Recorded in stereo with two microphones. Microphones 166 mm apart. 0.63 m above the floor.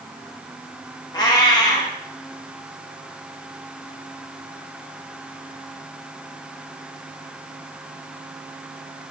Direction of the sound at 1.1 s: 25° left (ahead or behind).